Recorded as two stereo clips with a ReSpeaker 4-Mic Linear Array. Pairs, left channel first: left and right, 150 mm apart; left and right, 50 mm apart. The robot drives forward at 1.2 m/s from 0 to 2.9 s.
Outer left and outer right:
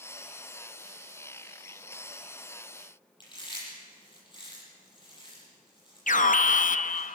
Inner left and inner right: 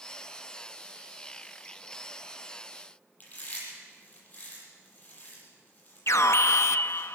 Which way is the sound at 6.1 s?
60° left (ahead or behind).